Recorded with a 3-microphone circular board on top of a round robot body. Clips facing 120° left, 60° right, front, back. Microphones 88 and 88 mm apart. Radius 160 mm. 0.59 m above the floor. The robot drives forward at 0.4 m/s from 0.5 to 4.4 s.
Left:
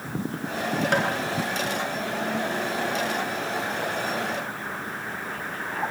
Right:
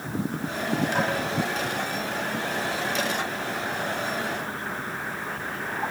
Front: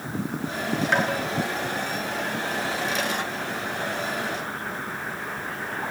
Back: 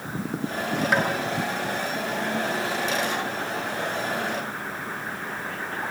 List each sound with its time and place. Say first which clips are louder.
0.9 s tapping: left 4 dB, even; 95° left, 4 m